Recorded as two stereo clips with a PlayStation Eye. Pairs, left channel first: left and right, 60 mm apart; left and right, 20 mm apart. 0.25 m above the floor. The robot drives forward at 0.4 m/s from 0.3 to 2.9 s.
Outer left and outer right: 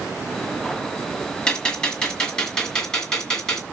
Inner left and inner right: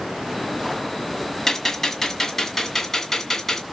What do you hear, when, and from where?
1.5 s a gunshot: 15° left (ahead or behind), 1.6 m; by 3.6 s 10° left (ahead or behind), 2 m